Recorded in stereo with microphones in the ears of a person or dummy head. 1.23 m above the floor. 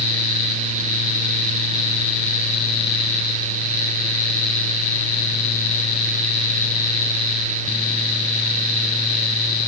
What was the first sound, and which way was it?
Only background noise.